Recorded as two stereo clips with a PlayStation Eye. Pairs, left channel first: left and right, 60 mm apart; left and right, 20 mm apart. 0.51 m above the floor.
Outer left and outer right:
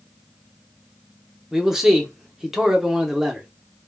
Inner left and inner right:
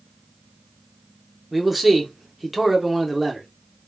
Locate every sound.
1.5 s a man speaking: 10° right (ahead or behind), 0.8 m